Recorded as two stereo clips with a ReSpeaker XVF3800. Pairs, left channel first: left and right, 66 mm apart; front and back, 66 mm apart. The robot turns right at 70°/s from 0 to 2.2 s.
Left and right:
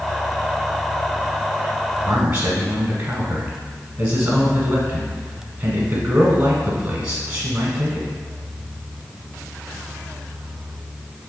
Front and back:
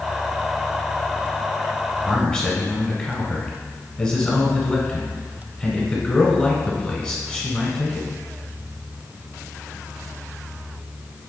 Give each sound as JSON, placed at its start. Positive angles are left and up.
{"t": 2.0, "sound": "a man speaking", "azimuth_deg": -60, "distance_m": 1.1}